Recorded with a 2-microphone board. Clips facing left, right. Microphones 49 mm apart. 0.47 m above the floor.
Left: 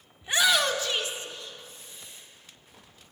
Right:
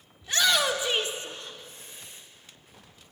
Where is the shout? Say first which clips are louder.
Left 1 dB; 25° left (ahead or behind), 0.8 m; by 2.2 s 65° right (ahead or behind), 1.8 m.